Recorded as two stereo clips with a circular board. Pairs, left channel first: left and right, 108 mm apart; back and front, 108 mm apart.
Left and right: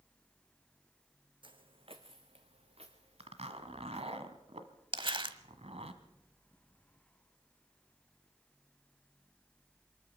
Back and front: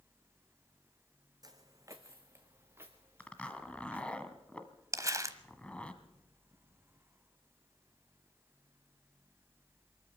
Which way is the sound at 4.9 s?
55° right.